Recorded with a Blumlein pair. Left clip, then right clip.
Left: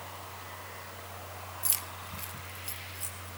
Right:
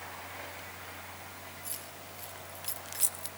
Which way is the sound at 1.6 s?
35° left.